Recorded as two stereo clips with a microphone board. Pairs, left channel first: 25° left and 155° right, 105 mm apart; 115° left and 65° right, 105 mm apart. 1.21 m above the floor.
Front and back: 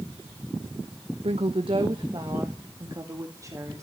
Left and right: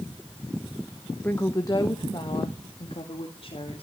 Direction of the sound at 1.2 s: 170° right.